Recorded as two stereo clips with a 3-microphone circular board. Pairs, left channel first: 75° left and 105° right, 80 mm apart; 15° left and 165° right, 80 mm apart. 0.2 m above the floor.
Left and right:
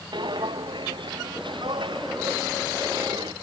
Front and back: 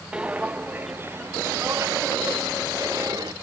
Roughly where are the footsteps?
Right.